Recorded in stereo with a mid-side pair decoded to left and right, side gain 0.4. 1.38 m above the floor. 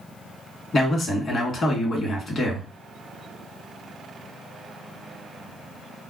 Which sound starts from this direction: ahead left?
A man speaking, at 0.7 s.